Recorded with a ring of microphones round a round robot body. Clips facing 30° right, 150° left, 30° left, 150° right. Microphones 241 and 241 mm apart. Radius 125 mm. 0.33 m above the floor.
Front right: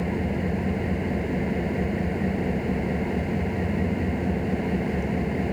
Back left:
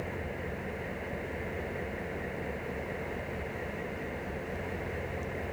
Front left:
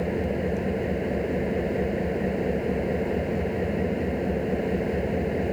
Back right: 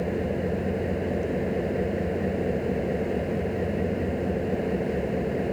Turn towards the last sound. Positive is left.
turn(degrees=-60)